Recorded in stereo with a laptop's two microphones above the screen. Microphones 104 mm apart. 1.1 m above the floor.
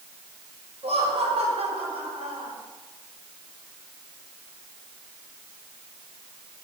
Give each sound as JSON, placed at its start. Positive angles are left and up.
{"t": 0.8, "sound": "laughter", "side_deg": -75, "distance_m": 5.0}